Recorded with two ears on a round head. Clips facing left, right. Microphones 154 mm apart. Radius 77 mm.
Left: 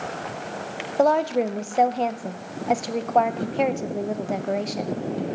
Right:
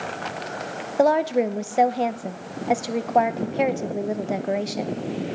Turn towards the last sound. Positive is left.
turn(degrees=-5)  # may be behind; listen again after turning